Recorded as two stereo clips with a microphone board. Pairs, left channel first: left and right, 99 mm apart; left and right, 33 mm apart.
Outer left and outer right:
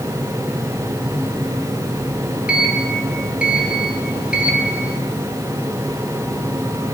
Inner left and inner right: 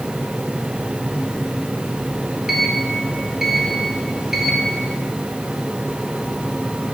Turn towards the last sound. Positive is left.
turn(degrees=-10)  # may be behind; listen again after turning